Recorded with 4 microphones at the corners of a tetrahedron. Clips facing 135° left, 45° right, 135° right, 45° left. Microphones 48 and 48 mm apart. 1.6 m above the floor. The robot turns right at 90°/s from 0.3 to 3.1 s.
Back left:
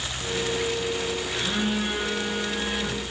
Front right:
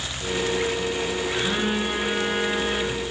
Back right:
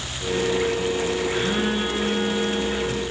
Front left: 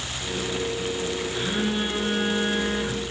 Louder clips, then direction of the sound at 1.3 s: Front right 2 dB, back right 3 dB; 105° right.